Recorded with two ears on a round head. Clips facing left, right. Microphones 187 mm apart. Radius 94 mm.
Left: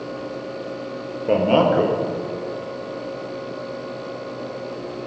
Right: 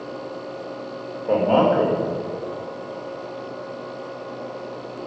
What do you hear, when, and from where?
1.3 s a man speaking: 35° left (ahead or behind), 0.8 m